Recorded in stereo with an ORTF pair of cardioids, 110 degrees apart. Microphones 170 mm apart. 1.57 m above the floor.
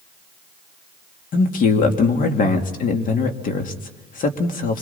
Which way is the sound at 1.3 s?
55° left.